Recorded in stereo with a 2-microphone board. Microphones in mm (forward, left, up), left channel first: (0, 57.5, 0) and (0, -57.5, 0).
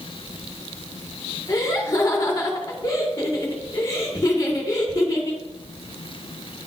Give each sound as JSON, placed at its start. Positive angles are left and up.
{"t": 1.5, "sound": "laughter", "side_deg": 30, "distance_m": 1.9}